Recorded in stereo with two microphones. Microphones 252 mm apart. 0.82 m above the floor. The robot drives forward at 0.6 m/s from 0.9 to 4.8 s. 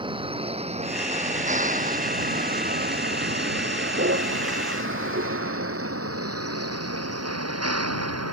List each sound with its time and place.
0.0 s a vehicle: 20° right (ahead or behind); by 8.3 s 80° right